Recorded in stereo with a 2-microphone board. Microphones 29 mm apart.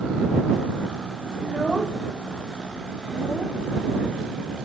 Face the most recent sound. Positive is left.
turn(degrees=25)  # may be behind; listen again after turning